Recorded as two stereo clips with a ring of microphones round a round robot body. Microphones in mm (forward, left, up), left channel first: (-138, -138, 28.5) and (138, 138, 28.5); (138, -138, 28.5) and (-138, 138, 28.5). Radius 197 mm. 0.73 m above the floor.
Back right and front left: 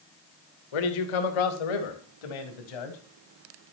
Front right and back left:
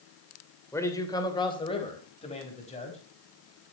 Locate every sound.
0.7 s a man speaking: 130° right, 2.5 m; by 3.0 s 120° right, 4.5 m